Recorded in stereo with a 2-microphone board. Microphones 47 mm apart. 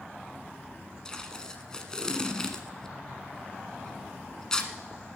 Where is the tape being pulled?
15° left (ahead or behind), 1.1 m.